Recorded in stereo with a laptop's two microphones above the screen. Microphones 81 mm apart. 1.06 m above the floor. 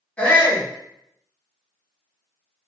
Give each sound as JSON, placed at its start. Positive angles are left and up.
{"t": 0.2, "sound": "a shout", "side_deg": 15, "distance_m": 1.3}